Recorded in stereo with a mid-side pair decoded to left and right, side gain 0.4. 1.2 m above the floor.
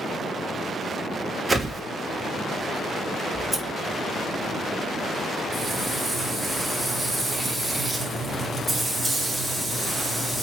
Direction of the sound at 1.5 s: 25° right.